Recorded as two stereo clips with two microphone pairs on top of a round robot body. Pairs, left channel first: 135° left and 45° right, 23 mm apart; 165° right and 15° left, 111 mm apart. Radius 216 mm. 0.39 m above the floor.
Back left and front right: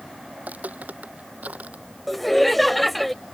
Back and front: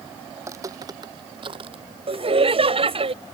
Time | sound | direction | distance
0.4 | footsteps | 50° right | ?
2.1 | laughter | 50° left | ?